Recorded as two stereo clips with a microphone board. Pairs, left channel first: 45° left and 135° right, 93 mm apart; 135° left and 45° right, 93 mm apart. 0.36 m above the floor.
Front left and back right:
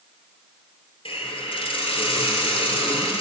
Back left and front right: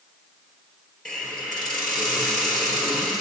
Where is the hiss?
50° left, 1.4 m.